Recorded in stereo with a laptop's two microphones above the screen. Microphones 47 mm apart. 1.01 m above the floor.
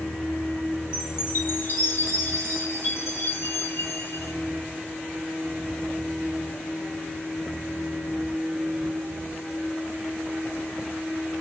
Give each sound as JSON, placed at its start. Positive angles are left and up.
{"t": 0.9, "sound": "a chime", "side_deg": 65, "distance_m": 1.7}